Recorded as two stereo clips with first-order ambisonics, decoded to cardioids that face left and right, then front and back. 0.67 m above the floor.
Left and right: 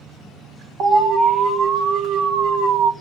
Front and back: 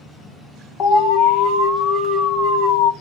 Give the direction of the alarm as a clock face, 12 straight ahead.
1 o'clock.